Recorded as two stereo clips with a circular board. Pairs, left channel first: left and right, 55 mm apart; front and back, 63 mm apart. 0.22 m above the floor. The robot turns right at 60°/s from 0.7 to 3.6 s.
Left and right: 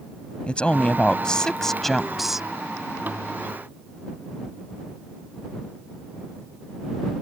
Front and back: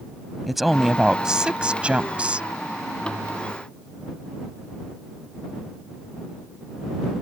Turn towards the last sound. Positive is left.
turn(degrees=-90)